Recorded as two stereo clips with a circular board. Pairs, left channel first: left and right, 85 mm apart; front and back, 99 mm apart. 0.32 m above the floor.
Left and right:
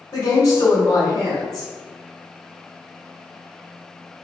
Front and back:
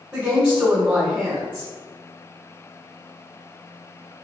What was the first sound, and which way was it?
A woman speaking, 115° left.